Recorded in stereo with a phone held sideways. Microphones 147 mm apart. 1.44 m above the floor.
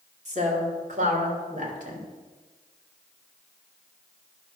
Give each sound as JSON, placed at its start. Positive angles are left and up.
{"t": 0.2, "sound": "a woman speaking", "side_deg": -50, "distance_m": 2.5}